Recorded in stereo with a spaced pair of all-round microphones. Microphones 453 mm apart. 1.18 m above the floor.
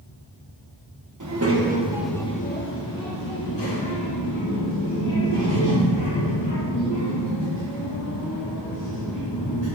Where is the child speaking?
40° right (ahead or behind), 0.9 m; by 9.7 s 70° left (ahead or behind), 5.5 m.